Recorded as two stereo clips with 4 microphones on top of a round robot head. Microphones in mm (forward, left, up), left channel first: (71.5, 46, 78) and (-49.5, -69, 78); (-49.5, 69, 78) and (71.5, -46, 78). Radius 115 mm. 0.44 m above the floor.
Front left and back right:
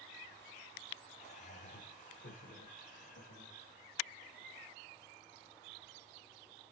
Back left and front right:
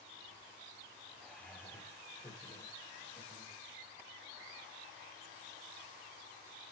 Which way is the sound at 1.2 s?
55° left.